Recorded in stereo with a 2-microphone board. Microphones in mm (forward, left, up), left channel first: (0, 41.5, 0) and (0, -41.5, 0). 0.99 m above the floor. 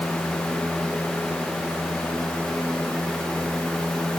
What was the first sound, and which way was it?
Only background noise.